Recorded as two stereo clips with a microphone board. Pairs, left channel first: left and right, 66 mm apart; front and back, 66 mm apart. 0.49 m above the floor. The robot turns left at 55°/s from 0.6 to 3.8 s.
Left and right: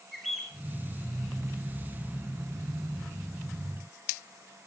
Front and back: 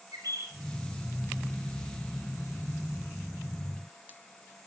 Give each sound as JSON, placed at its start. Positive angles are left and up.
{"t": 0.1, "sound": "a bird", "azimuth_deg": 180, "distance_m": 8.0}